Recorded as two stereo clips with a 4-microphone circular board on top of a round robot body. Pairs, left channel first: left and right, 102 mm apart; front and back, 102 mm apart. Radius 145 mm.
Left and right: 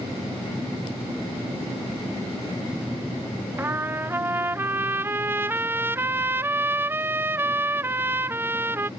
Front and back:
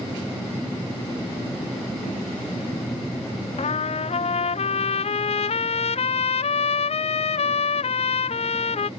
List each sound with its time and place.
3.6 s a trumpet: 20° right